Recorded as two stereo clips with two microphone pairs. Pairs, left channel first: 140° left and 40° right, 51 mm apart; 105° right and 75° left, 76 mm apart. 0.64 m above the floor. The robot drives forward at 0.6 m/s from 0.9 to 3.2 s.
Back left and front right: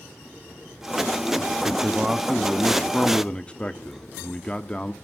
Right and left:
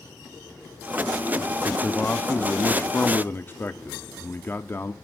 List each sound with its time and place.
1.6 s a man speaking: 55° right, 0.8 m; by 4.9 s 155° right, 1.0 m